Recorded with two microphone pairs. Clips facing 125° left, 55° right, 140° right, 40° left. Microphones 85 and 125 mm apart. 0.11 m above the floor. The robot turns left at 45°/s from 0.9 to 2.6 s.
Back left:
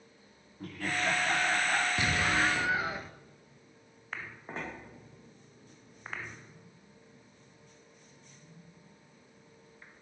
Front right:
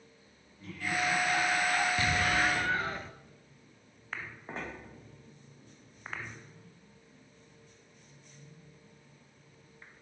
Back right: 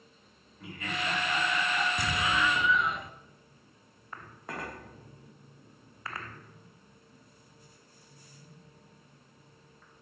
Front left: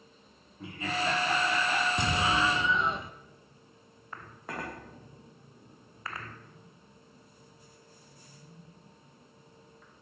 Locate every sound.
0.6 s laughter: 100° left, 8 m; by 1.9 s 55° left, 8 m
2.0 s an explosion: 75° left, 1.1 m; by 3.1 s 50° left, 1.1 m